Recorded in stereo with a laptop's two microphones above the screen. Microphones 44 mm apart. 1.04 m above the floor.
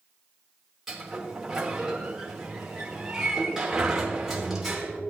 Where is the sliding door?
10° right (ahead or behind), 1.4 m.